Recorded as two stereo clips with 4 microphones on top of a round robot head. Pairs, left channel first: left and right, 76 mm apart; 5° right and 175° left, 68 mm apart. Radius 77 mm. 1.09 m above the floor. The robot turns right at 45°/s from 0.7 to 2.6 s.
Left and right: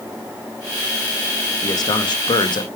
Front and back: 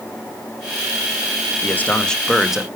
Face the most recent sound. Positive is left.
turn(degrees=95)